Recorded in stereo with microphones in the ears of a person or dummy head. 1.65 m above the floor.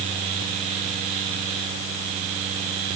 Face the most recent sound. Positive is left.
No sound to turn to.